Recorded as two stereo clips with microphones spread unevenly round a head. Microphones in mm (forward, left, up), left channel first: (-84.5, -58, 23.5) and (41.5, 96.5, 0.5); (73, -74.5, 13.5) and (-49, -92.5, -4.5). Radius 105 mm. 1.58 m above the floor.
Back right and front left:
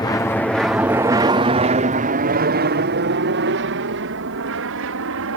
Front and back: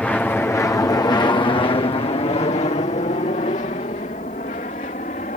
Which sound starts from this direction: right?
An aircraft, at 0.0 s.